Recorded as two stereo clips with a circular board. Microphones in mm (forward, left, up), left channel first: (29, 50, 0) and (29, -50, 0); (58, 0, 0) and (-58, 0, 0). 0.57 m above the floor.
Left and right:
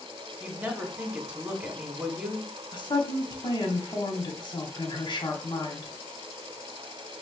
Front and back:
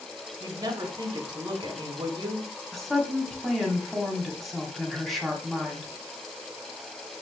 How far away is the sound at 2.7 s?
About 1.1 m.